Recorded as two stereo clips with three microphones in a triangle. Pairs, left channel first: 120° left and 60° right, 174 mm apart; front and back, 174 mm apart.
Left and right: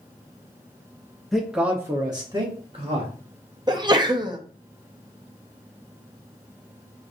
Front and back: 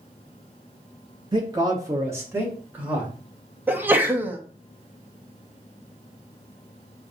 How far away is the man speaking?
About 0.9 m.